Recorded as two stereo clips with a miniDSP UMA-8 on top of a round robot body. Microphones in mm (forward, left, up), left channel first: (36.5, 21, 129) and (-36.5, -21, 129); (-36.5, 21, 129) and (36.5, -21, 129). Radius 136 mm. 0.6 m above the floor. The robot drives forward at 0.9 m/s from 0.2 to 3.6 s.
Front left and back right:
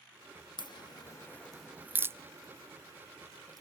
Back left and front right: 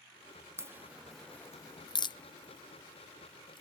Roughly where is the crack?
Ahead left.